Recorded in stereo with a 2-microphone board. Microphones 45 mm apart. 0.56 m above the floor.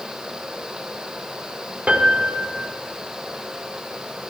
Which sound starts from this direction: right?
A piano, at 1.9 s.